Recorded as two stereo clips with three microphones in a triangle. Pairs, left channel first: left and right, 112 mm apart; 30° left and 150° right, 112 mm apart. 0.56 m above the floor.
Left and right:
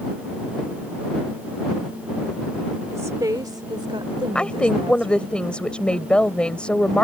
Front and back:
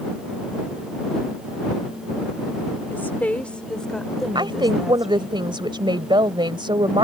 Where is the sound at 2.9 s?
35° right; by 5.3 s 65° right.